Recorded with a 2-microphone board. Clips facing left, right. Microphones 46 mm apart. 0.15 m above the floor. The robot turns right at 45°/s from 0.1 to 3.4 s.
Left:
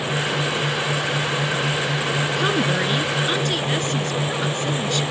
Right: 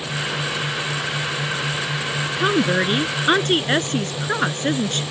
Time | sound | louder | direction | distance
2.4 | a woman speaking | right 5 dB | 165° right | ?